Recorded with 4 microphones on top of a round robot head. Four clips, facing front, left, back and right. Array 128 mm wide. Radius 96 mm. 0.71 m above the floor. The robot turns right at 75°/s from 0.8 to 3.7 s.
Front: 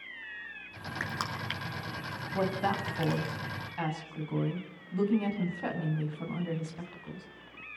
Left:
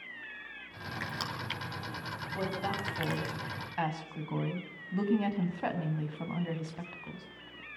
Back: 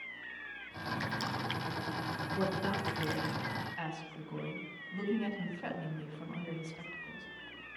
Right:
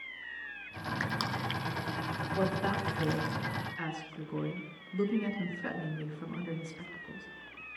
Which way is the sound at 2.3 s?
25° right.